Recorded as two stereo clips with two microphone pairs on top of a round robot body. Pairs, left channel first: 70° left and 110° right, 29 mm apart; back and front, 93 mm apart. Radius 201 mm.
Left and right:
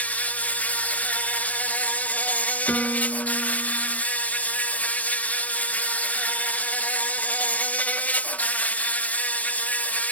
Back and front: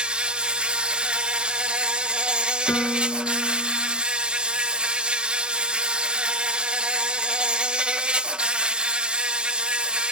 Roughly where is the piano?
Left.